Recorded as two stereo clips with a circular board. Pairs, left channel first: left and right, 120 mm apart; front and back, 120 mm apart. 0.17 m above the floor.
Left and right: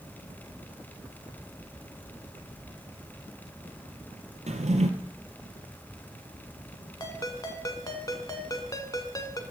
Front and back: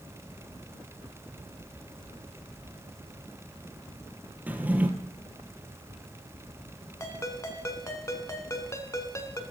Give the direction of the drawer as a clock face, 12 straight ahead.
3 o'clock.